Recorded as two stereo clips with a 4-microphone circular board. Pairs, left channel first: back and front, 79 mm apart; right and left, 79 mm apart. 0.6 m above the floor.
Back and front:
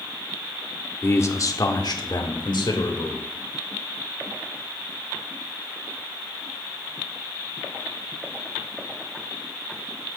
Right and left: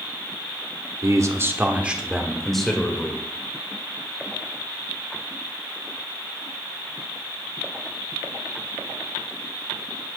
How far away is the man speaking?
About 1.1 m.